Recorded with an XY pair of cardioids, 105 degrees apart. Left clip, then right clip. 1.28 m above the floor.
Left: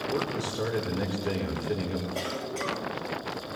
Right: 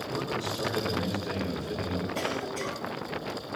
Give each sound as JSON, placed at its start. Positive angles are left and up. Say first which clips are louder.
{"t": 0.1, "sound": "a man speaking", "louder": "even", "azimuth_deg": 55, "distance_m": 4.5}
{"t": 2.1, "sound": "a cough", "louder": "right 1 dB", "azimuth_deg": 30, "distance_m": 7.5}